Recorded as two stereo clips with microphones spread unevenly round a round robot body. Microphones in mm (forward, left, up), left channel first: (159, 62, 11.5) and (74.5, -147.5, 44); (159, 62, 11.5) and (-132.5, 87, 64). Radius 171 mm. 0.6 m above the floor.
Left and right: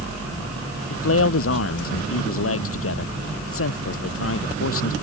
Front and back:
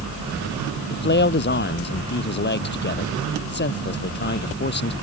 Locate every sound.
0.9 s a man speaking: 50° left